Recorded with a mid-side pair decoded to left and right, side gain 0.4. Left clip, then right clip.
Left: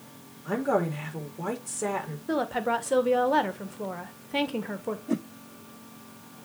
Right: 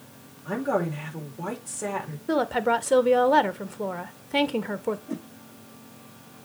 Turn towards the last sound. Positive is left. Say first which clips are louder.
# left 5 dB
turn(degrees=40)